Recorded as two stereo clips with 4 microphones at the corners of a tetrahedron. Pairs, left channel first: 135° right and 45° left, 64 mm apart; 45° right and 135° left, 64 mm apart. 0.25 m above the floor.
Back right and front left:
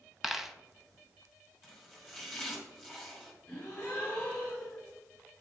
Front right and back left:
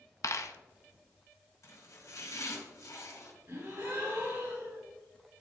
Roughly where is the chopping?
Ahead right.